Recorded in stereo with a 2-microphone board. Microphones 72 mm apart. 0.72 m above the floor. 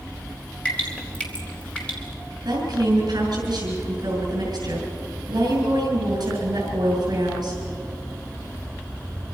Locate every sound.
0.7 s dripping: 15° left (ahead or behind), 4 m
2.5 s a woman speaking: 70° right (ahead or behind), 5.5 m